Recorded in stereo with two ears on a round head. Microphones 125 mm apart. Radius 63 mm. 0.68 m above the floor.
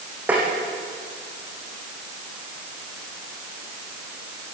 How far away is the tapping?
About 7 m.